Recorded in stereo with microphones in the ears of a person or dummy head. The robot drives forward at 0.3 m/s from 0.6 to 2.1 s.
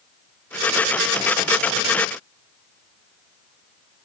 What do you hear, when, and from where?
Only background noise.